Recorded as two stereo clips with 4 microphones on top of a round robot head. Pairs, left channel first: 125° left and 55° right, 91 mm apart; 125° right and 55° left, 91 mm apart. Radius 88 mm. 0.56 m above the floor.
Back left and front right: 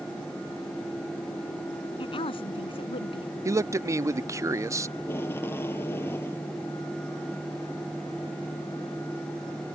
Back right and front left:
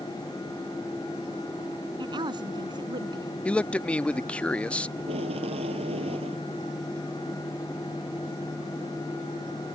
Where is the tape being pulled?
55° left.